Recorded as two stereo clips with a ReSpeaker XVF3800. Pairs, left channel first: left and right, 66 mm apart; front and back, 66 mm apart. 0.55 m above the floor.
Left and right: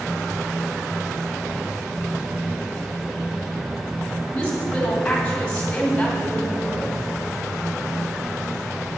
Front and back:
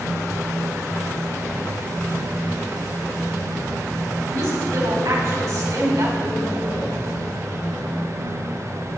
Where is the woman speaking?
165° left, 3.5 m.